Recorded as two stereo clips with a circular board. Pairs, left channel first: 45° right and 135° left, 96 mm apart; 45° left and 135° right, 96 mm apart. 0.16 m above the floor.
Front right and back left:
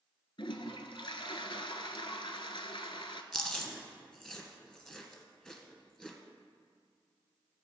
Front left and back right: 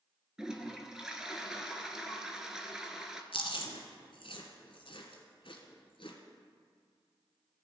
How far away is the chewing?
About 1.7 m.